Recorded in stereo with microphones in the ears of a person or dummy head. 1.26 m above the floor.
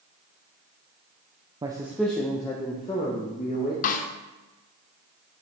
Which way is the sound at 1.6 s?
20° right (ahead or behind).